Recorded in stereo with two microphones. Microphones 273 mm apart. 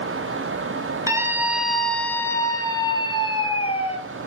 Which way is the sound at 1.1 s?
10° right (ahead or behind).